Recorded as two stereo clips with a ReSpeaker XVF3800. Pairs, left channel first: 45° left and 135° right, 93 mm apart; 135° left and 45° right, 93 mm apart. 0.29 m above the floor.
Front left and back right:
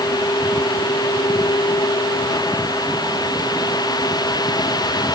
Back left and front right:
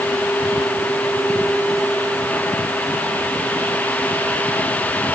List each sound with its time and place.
Only background noise.